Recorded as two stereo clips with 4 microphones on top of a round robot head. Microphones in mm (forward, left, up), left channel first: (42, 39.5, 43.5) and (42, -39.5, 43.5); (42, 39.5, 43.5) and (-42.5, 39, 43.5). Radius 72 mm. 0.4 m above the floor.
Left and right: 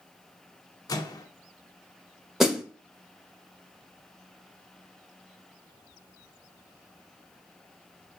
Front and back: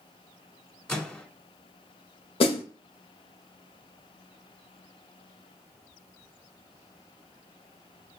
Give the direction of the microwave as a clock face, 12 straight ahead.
9 o'clock.